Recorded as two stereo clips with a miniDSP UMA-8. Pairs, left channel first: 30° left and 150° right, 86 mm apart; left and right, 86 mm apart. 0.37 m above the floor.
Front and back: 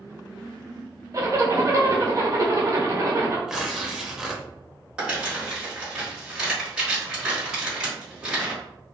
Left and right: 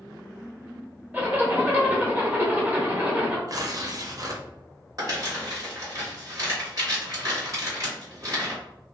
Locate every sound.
1.1 s a zipper: 150° right, 0.8 m
3.5 s tearing paper: 65° right, 0.5 m
5.0 s crumpling: 75° right, 1.9 m